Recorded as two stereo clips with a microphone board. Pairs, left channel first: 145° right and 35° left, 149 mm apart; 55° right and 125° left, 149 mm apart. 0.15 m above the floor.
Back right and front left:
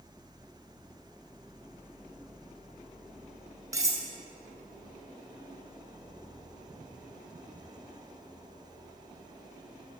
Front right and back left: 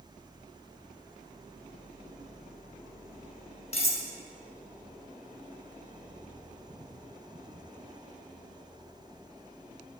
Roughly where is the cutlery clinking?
Ahead right.